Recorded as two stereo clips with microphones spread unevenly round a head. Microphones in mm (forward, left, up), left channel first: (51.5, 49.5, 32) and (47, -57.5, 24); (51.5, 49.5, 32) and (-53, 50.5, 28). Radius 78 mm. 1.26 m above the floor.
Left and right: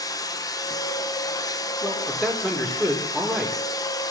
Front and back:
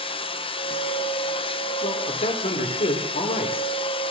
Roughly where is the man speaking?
Ahead.